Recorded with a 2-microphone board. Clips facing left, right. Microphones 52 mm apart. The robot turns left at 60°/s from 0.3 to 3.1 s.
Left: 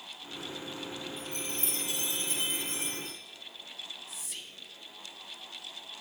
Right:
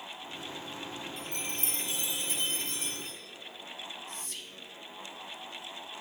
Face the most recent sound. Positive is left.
turn(degrees=5)  # may be behind; listen again after turning